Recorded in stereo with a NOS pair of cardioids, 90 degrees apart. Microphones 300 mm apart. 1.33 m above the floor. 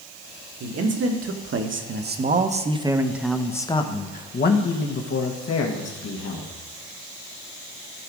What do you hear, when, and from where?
0.6 s a man speaking: 55° right, 2.0 m; by 6.5 s 60° left, 2 m